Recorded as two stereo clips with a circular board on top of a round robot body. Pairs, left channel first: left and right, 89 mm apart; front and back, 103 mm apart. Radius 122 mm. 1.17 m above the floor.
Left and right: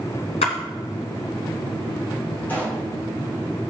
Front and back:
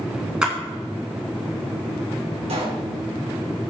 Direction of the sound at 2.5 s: 160° left.